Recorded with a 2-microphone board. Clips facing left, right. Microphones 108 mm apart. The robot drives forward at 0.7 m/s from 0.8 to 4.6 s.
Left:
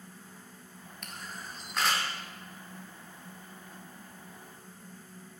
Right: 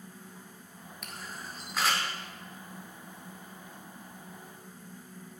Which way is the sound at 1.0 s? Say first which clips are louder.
Even; 5° right (ahead or behind).